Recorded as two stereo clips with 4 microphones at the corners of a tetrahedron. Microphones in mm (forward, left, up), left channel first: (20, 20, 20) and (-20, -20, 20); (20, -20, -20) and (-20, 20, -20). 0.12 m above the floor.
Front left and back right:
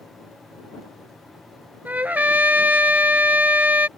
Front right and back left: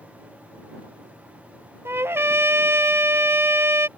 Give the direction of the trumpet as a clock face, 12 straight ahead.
6 o'clock.